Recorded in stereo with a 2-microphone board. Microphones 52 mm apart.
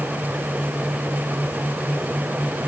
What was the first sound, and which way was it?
Only background noise.